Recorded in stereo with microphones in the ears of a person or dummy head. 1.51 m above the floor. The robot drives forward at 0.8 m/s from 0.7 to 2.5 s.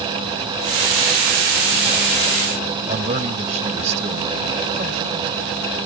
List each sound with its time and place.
2.9 s a man speaking: 40° right (ahead or behind)